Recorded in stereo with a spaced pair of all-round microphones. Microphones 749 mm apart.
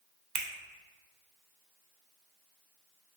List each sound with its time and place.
0.3 s a finger snap: 75° right (ahead or behind), 0.5 m